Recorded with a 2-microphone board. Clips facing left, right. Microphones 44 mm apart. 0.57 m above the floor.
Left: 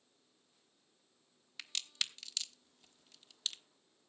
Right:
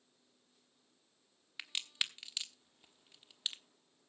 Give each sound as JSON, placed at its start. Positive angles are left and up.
{"t": 1.6, "sound": "a crack", "side_deg": -20, "distance_m": 1.1}